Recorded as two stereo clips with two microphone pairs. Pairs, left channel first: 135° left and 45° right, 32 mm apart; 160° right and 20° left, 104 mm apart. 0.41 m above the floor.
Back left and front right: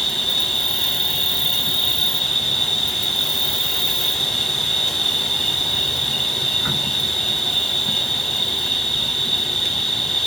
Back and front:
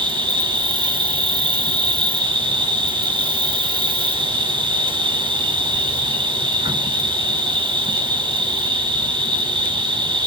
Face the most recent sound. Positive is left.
turn(degrees=50)